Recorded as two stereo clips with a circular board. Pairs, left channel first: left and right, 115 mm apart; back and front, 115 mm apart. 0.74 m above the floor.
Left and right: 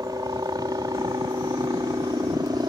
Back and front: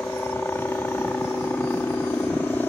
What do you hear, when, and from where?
0.0 s a helicopter: 115° right